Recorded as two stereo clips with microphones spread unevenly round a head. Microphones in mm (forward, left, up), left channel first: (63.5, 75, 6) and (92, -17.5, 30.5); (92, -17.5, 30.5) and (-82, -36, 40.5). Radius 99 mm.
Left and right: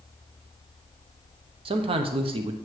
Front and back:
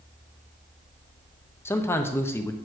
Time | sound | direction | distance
1.6 | a man speaking | 70° right | 0.6 m